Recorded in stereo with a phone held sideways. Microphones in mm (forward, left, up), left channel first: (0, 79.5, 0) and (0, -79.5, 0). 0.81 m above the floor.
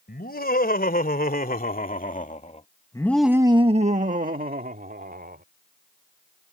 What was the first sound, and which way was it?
Laughter, 75° left (ahead or behind).